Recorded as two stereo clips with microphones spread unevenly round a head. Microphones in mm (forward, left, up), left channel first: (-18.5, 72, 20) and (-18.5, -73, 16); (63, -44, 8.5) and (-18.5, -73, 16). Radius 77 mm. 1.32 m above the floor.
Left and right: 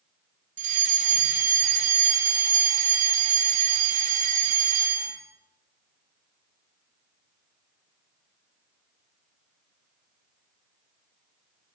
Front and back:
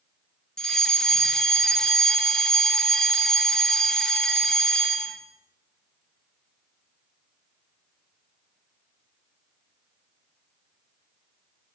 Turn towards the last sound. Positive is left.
turn(degrees=-60)